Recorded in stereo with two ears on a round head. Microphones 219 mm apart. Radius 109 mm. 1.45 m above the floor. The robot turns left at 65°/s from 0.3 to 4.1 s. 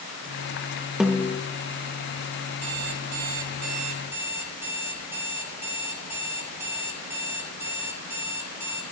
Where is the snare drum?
5° right (ahead or behind), 1.4 m; by 1.4 s 25° left (ahead or behind), 1.4 m.